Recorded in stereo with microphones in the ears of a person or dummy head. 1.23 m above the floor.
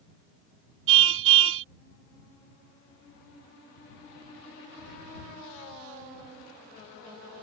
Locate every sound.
0.9 s a car horn: 80° right